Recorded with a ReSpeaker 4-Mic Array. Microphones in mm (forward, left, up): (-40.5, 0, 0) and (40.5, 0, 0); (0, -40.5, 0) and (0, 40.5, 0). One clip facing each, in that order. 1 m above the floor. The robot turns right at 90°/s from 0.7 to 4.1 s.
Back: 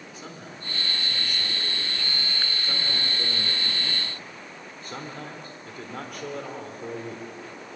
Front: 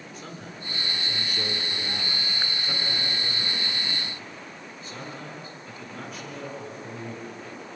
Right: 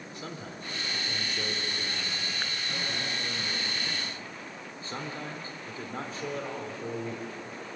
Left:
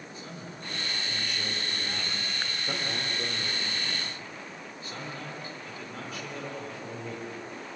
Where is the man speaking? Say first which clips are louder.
Front 1 dB, right 4 dB; 90° right, 3 m; by 7.3 s 145° right, 3 m.